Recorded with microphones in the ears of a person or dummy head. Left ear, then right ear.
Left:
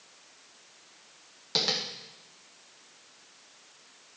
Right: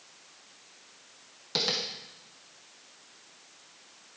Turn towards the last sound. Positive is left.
turn(degrees=5)  # may be behind; listen again after turning